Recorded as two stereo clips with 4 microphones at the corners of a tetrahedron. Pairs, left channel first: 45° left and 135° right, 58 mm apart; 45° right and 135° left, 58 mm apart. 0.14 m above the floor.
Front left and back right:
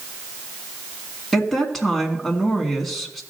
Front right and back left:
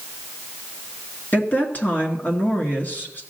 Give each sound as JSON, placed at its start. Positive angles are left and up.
{"t": 1.3, "sound": "a woman speaking", "azimuth_deg": -40, "distance_m": 1.5}